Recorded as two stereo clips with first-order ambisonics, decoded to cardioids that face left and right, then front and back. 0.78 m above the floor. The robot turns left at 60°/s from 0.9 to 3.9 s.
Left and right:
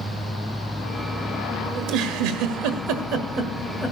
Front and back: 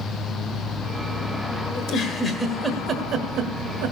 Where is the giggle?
45° right, 1.2 m; by 3.9 s 175° right, 1.2 m.